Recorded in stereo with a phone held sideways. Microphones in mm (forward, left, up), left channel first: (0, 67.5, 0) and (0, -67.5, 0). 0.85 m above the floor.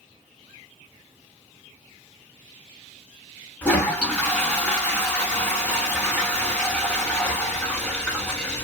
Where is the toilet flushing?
10° left (ahead or behind), 1.4 m.